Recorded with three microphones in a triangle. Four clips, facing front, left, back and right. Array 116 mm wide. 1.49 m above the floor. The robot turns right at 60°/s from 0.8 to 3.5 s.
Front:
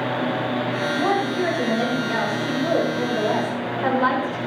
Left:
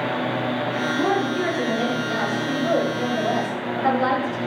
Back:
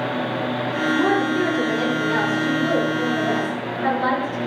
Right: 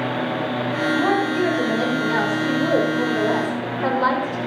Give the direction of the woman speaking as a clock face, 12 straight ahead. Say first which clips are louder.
Right 2 dB, back 2 dB; 7 o'clock.